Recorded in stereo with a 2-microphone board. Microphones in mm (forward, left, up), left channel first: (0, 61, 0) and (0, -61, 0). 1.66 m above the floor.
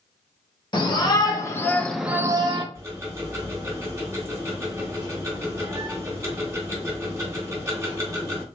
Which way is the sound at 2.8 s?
25° right (ahead or behind).